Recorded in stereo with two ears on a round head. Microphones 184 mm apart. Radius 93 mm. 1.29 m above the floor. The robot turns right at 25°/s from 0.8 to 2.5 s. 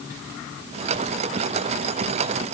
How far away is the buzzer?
I don't hear a buzzer.